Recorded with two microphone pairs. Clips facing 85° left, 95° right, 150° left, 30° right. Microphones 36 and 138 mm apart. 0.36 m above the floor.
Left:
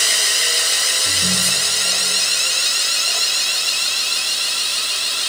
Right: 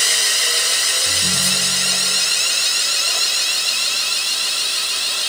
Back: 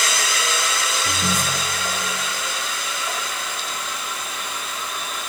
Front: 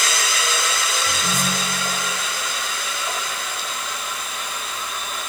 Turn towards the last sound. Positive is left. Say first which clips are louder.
# even, even
turn(degrees=125)